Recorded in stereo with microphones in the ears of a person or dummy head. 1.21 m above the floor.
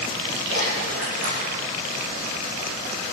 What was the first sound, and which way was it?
A splash, 75° right (ahead or behind).